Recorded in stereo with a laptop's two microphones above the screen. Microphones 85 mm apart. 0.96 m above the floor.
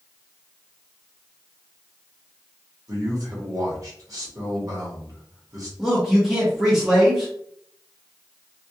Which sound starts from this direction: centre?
A man speaking, at 5.8 s.